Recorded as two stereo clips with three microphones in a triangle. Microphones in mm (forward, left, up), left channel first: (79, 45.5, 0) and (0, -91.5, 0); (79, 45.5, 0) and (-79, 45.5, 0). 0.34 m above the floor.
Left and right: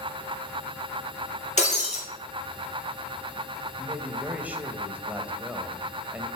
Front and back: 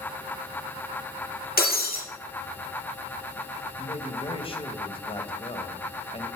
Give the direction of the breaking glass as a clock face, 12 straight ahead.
11 o'clock.